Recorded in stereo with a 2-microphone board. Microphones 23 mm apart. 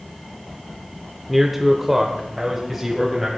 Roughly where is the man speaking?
Centre.